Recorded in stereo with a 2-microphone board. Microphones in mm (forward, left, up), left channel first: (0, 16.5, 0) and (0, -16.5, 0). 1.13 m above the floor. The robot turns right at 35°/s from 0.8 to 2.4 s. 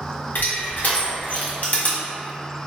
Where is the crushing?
70° left (ahead or behind), 0.9 m; by 2.0 s 45° left (ahead or behind), 0.9 m.